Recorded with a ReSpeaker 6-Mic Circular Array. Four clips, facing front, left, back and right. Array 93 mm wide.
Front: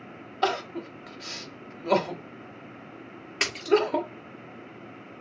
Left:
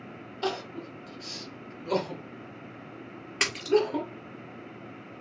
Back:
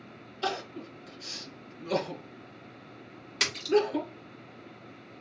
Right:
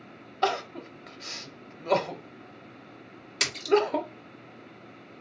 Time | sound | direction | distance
0.4 | crying | 30° right | 0.9 m
3.4 | a splash | 50° left | 1.6 m